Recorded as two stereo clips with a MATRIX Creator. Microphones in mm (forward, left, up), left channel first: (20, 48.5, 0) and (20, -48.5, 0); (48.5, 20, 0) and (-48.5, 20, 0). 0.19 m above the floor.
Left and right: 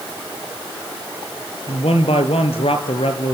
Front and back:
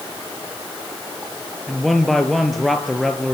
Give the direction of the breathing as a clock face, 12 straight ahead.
I don't hear breathing.